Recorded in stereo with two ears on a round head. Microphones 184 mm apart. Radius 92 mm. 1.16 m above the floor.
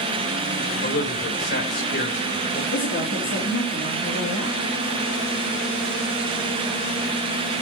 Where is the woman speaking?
65° left (ahead or behind), 3 m.